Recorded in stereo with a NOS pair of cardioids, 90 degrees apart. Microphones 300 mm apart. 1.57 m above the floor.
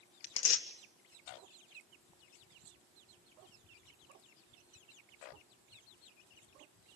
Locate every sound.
0.2 s tearing paper: 55° left, 1.4 m